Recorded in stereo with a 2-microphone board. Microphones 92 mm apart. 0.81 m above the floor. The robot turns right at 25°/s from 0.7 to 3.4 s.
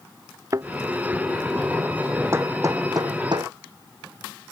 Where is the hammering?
30° right (ahead or behind); by 3.5 s 55° right (ahead or behind).